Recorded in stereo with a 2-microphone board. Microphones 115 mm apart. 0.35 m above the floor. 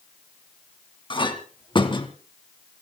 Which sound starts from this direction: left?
A clink, at 1.1 s.